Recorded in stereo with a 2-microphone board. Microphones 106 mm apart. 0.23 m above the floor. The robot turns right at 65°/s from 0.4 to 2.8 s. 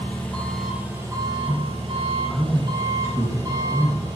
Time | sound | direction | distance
0.0 | an engine running | 165° left | 5 m
1.5 | a man speaking | 50° right (ahead or behind) | 3.5 m